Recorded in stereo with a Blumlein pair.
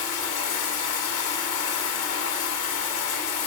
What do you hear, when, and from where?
0.0 s running water: 50° left, 2 m